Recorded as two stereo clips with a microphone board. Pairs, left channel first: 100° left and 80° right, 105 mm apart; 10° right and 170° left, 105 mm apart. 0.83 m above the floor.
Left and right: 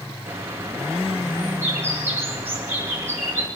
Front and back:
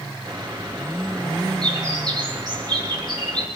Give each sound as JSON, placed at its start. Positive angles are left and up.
{"t": 0.2, "sound": "a bird", "azimuth_deg": -145, "distance_m": 4.5}